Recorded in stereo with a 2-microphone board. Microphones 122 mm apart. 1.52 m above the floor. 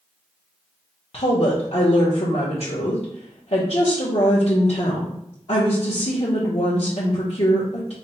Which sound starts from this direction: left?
A woman speaking, at 1.1 s.